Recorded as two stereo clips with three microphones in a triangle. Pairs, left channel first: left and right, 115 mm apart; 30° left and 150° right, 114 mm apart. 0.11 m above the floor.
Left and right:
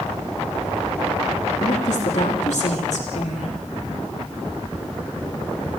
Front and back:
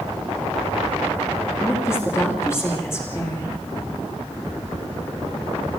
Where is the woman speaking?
95° left, 6.5 m.